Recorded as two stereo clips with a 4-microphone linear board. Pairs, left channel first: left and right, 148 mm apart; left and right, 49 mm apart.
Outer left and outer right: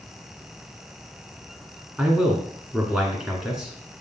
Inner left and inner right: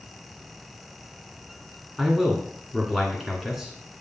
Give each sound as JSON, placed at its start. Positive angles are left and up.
{"t": 2.0, "sound": "a man speaking", "side_deg": -5, "distance_m": 2.0}